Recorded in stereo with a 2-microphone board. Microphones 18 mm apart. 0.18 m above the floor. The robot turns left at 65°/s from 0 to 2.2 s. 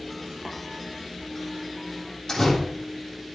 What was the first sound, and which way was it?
Tapping, 35° right (ahead or behind).